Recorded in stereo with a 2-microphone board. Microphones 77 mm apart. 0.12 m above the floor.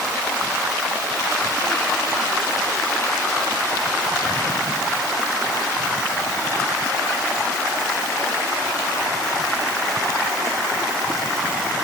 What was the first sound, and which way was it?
Only background noise.